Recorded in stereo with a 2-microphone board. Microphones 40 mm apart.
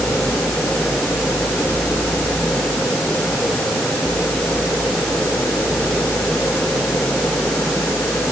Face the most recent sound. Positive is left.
No sound to turn to.